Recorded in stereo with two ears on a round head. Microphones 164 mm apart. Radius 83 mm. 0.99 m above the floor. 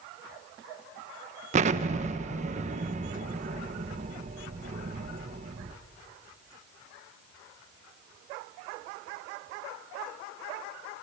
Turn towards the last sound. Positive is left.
turn(degrees=-40)  # may be behind; listen again after turning